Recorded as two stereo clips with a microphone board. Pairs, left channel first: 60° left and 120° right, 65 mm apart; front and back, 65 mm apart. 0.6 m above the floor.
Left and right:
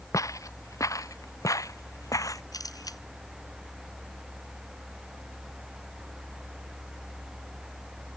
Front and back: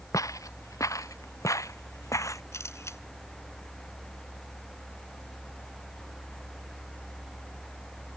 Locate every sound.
0.1 s footsteps: 30° left; by 2.4 s 35° left
2.5 s a camera shutter: 45° left